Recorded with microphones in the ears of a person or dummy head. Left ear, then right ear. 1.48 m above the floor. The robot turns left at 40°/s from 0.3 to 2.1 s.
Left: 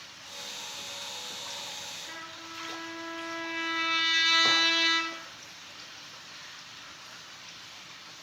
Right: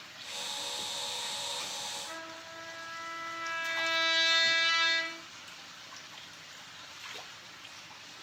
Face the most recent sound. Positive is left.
turn(degrees=5)  # may be behind; listen again after turning